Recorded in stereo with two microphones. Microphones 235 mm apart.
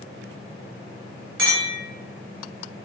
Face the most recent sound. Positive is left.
turn(degrees=-55)  # may be behind; listen again after turning